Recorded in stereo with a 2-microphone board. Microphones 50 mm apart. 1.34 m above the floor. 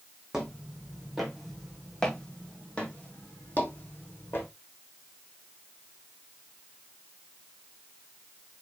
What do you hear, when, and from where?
0.3 s footsteps: 10° right (ahead or behind), 3.5 m; by 4.5 s 45° left (ahead or behind), 3 m